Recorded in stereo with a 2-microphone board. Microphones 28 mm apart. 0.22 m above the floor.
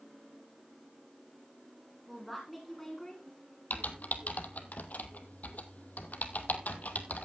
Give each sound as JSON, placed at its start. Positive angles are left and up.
{"t": 2.1, "sound": "a woman speaking", "side_deg": 0, "distance_m": 1.9}
{"t": 3.7, "sound": "typing on a keyboard", "side_deg": 75, "distance_m": 1.1}